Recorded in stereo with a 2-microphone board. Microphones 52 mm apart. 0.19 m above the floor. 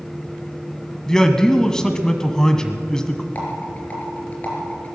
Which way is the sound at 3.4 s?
30° left (ahead or behind).